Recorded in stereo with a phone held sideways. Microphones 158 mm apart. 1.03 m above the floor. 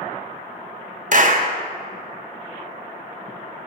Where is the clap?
55° right (ahead or behind), 0.6 m.